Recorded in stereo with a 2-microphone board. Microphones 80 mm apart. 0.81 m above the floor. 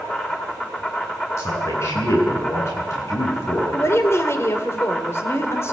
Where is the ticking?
I don't hear ticking.